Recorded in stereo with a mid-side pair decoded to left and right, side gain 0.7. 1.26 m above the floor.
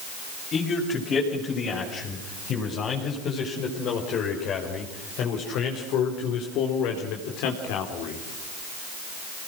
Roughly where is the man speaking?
Ahead left.